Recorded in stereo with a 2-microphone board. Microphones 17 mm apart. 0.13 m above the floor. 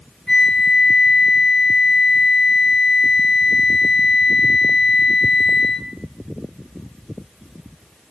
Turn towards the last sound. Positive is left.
turn(degrees=60)  # may be behind; listen again after turning